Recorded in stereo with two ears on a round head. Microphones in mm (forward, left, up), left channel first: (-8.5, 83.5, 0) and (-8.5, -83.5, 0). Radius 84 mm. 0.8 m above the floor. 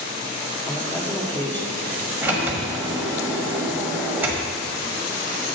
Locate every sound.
0.7 s a man speaking: 10° left (ahead or behind), 1.6 m
2.2 s a sliding door: 10° right (ahead or behind), 1.4 m